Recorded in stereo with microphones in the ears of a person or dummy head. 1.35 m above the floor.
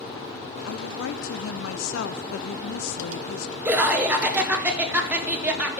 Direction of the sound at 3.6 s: 10° right (ahead or behind).